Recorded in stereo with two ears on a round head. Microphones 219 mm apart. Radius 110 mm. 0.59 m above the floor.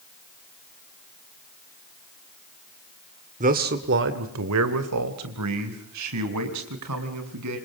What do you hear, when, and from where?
3.4 s a man speaking: 30° right (ahead or behind), 2.0 m; by 7.6 s 80° right, 6.5 m